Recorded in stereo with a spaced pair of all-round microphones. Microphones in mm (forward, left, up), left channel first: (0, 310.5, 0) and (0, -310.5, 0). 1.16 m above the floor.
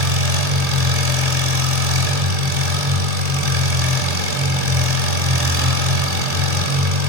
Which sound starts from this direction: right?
An engine running, at 0.0 s.